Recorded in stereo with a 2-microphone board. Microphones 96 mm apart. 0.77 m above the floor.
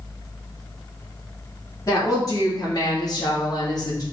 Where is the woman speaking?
35° left (ahead or behind), 1.7 m; by 4.0 s 40° left (ahead or behind), 1.1 m.